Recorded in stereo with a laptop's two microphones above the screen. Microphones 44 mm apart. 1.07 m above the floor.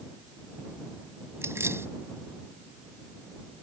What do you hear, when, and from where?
1.4 s keys jangling: 90° right